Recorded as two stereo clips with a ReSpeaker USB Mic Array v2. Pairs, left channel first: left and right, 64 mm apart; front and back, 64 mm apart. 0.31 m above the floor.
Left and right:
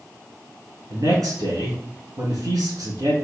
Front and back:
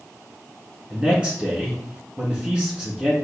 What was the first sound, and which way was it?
A man speaking, 105° right.